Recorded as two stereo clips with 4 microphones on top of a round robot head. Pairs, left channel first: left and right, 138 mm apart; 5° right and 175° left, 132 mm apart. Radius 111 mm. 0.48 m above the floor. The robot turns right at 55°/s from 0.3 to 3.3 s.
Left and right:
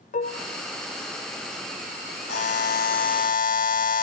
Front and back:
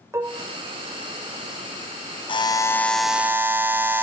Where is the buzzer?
45° left, 2 m; by 4.0 s 100° left, 2 m.